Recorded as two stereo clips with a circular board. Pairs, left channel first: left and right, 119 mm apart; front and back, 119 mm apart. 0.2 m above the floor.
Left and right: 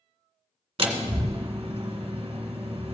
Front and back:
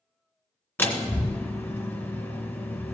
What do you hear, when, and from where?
0.8 s a door slam: 70° right, 1.3 m